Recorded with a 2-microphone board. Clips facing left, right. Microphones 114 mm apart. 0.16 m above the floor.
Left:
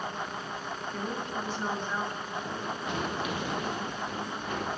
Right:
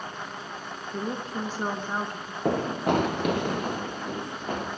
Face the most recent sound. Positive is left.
turn(degrees=-45)  # may be behind; listen again after turning